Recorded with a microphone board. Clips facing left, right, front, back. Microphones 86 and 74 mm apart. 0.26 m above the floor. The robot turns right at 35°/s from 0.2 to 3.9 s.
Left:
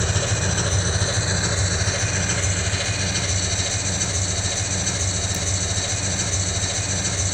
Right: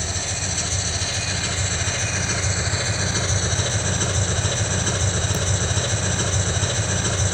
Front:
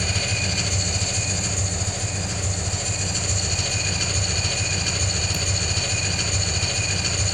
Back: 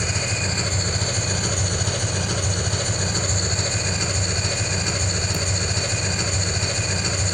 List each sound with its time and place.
0.0 s an engine running: 115° left, 1.2 m; by 7.3 s 115° right, 1.2 m